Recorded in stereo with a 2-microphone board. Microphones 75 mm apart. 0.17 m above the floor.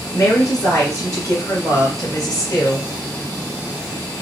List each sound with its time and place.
0.1 s a woman speaking: 45° left (ahead or behind), 2.5 m